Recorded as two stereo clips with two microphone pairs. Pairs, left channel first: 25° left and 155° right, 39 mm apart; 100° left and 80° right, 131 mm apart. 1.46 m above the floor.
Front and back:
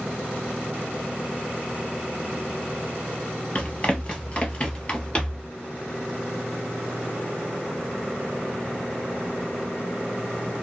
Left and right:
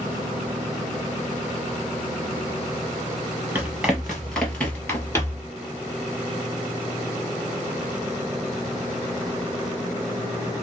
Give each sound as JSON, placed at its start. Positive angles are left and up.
{"t": 3.5, "sound": "running footsteps", "azimuth_deg": -5, "distance_m": 1.6}